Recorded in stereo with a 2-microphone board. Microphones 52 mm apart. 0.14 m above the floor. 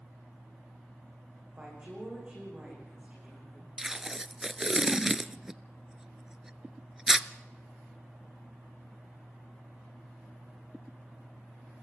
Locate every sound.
1.6 s a woman speaking: 25° right (ahead or behind), 9 m; by 3.7 s 20° right (ahead or behind), 10.5 m
3.8 s tape being pulled: 10° right (ahead or behind), 0.6 m